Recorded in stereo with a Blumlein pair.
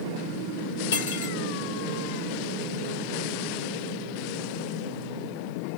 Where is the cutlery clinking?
60° left, 0.9 m.